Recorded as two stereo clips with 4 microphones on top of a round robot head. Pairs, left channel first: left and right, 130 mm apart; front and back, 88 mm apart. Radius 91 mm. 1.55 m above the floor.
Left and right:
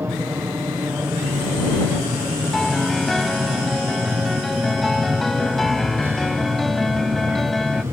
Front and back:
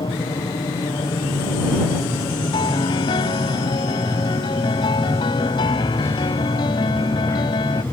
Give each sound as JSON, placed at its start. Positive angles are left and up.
{"t": 0.0, "sound": "an aircraft", "azimuth_deg": -20}
{"t": 2.5, "sound": "a piano", "azimuth_deg": 0}